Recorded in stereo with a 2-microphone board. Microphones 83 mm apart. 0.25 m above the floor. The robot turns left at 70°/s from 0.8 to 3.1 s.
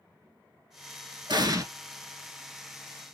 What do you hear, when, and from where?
1.3 s an explosion: 65° right (ahead or behind), 0.9 m; by 1.6 s 40° right (ahead or behind), 0.9 m